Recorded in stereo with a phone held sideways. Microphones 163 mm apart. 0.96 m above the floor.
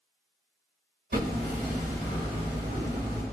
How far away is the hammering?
About 2 m.